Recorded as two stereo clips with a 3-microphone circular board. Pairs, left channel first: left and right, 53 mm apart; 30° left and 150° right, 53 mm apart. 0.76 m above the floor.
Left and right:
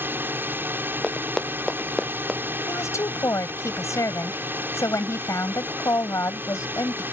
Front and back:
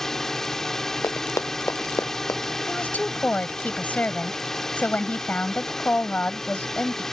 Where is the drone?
50° right.